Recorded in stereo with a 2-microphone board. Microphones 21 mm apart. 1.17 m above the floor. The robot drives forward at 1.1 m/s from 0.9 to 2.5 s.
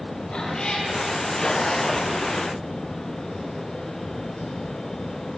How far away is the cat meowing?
About 9 m.